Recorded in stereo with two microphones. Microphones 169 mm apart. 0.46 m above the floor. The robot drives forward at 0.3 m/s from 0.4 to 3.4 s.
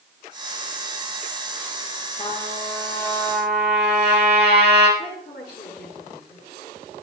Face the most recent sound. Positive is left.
turn(degrees=80)